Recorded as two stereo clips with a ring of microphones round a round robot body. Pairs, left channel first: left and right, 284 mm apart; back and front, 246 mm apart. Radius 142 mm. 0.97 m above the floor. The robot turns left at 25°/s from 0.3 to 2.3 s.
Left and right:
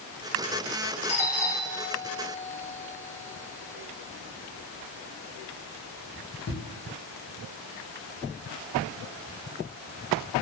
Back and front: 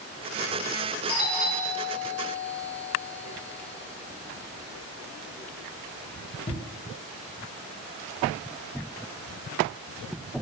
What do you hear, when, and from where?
1.1 s a doorbell: 155° left, 0.9 m; by 6.6 s 125° left, 0.9 m